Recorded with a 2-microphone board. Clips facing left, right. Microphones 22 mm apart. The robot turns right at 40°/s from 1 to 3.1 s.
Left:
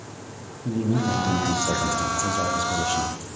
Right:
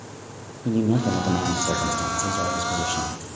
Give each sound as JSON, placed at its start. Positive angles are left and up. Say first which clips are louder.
{"t": 0.7, "sound": "a man speaking", "louder": "right 2 dB", "azimuth_deg": -70, "distance_m": 3.5}